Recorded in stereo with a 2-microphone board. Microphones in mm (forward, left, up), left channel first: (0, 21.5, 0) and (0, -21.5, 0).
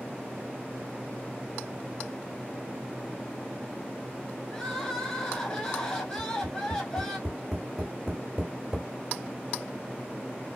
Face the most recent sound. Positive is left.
turn(degrees=-5)  # may be behind; listen again after turning